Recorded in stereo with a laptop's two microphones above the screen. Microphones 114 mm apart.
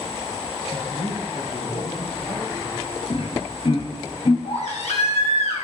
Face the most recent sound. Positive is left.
turn(degrees=75)  # may be behind; listen again after turning